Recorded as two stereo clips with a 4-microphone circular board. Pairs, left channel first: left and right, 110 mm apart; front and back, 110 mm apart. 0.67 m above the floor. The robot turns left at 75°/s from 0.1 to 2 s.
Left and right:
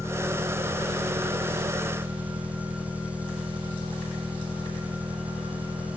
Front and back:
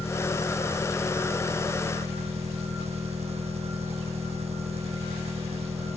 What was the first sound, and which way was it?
An engine running, 25° right.